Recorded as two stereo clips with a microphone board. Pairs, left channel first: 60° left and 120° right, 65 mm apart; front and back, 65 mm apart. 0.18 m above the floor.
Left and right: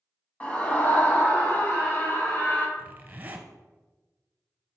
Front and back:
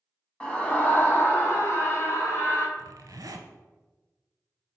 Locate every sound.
0.4 s a scream: 45° left, 1.3 m; by 2.7 s 20° left, 2 m
2.8 s a zipper: 175° right, 0.9 m